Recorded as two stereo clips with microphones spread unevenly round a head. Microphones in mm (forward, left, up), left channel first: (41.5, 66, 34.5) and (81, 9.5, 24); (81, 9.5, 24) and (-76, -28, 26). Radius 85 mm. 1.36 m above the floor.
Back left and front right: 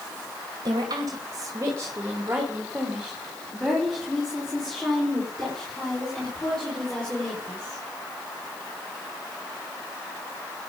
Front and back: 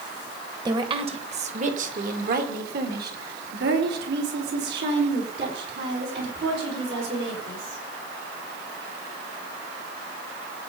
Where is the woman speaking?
100° right, 1.5 m; by 7.8 s 150° right, 6 m.